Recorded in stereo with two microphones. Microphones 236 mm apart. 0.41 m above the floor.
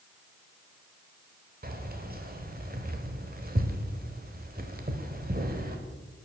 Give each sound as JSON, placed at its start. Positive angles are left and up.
{"t": 1.6, "sound": "keys jangling", "side_deg": -40, "distance_m": 1.0}